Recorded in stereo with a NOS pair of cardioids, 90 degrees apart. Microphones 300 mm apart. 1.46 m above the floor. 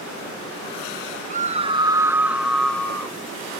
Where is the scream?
25° right, 1.3 m; by 3.2 s 10° left, 2 m.